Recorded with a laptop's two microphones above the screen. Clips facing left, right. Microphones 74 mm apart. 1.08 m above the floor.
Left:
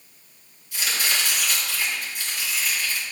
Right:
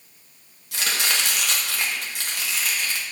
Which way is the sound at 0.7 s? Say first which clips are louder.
Right 1 dB; 70° right (ahead or behind).